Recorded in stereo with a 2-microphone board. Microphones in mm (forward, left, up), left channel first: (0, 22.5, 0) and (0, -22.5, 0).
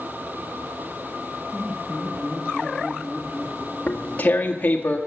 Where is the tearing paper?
40° left (ahead or behind), 1.7 m.